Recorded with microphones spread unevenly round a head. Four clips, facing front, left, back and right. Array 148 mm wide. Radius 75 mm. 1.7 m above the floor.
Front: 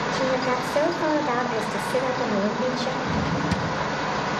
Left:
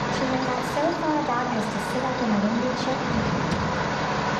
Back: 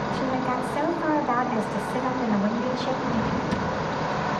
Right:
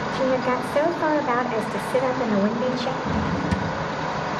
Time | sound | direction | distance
0.1 | a woman speaking | 60° right | 6 m
3.0 | a drawer | 50° right | 6.5 m